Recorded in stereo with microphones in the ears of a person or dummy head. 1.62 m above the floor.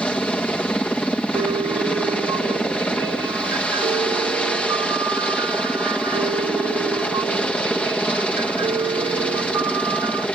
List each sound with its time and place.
0.0 s a helicopter: 5° left (ahead or behind)
1.4 s a piano: 15° right (ahead or behind)